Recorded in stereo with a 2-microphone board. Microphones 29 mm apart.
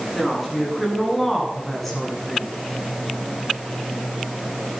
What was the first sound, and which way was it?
A woman speaking, 5° right (ahead or behind).